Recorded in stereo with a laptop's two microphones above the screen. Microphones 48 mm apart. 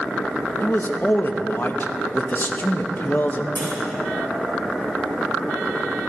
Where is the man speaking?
40° left (ahead or behind), 0.8 m.